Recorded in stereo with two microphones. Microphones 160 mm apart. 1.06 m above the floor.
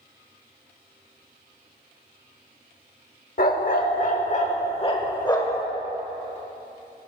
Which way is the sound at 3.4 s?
60° left (ahead or behind).